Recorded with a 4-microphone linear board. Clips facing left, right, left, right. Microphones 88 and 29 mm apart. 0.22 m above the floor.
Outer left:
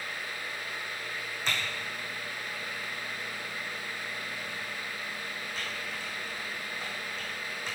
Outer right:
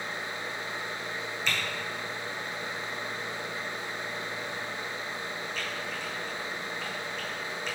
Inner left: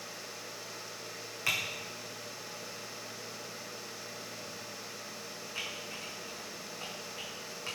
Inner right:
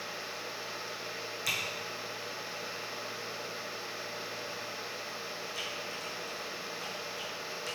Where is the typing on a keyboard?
35° left (ahead or behind), 2 m.